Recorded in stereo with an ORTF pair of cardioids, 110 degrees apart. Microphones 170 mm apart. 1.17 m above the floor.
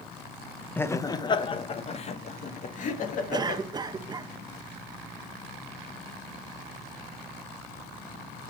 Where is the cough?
25° right, 0.8 m.